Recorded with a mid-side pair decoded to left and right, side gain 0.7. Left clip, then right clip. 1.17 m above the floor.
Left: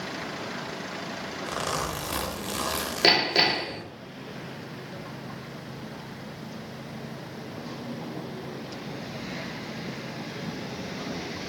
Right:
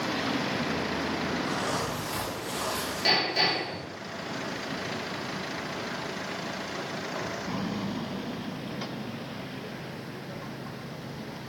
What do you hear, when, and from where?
1.5 s a zipper: 55° left, 0.7 m
3.0 s hammering: 70° left, 0.6 m